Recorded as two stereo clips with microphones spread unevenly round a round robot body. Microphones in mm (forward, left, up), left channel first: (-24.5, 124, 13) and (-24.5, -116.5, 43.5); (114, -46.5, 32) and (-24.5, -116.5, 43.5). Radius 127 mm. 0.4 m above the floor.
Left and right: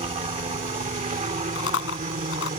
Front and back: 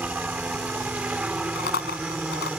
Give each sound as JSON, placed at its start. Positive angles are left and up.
{"t": 0.0, "sound": "a helicopter", "azimuth_deg": -85}
{"t": 1.6, "sound": "chewing", "azimuth_deg": 50}